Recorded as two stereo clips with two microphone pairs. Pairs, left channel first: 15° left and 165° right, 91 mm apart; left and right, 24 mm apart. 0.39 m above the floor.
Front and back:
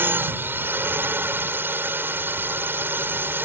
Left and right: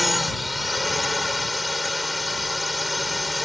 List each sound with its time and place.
0.0 s a drone: 175° right